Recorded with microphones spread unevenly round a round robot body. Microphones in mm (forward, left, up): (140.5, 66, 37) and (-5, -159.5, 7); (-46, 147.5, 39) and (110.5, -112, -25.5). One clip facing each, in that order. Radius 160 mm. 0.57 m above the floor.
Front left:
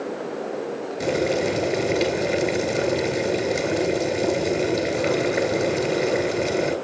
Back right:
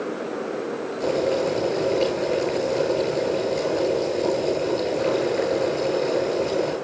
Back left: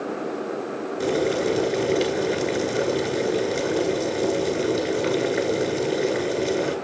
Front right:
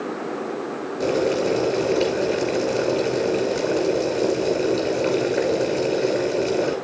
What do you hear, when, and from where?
1.0 s boiling: 45° left, 5 m